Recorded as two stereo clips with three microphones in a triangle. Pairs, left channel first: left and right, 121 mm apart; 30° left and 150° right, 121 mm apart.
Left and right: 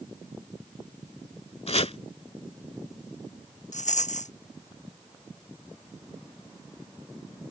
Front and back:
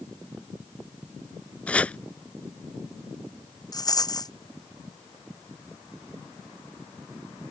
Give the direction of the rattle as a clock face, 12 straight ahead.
9 o'clock.